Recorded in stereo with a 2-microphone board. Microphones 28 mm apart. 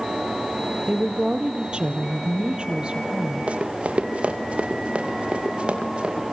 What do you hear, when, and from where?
0.9 s a woman speaking: 35° right (ahead or behind), 4 m
3.5 s running footsteps: 50° right (ahead or behind), 4.5 m; by 6.2 s 40° right (ahead or behind), 7.5 m